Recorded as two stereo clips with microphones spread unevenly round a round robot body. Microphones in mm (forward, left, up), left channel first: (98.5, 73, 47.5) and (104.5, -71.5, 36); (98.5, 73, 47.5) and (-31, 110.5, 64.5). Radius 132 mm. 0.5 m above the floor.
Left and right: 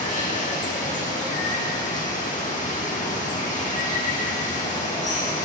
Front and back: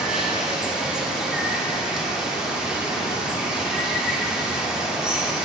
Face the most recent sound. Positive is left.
turn(degrees=75)